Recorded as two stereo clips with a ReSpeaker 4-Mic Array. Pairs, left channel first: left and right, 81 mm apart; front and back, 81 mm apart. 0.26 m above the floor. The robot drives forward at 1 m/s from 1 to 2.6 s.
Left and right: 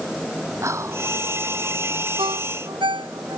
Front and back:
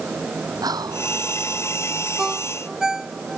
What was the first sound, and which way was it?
Whispering, 145° right.